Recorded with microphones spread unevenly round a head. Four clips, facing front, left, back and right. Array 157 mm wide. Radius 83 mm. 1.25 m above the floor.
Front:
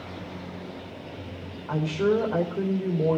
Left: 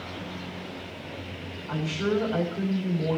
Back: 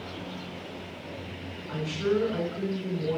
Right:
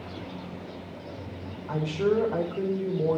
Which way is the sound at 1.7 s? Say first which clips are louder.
Right 2 dB, front 4 dB; 25° right.